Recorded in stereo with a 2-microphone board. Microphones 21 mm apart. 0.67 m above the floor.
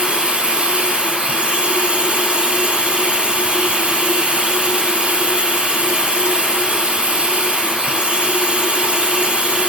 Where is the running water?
80° right, 3.5 m.